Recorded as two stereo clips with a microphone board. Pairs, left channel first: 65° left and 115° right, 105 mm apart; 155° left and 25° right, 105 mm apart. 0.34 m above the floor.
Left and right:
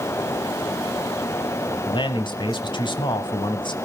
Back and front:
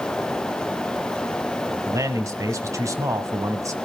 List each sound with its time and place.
1.9 s a man speaking: 35° left, 2.0 m